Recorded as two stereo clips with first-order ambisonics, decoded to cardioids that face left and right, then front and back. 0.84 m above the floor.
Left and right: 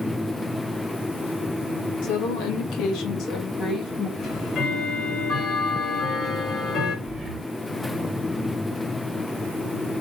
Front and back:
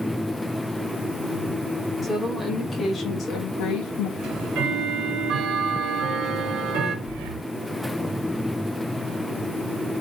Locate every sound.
2.0 s a woman speaking: 90° left, 1.8 m; by 4.1 s 5° right, 1.0 m
4.2 s ticking: 145° left, 1.6 m
7.0 s breathing: 175° right, 0.9 m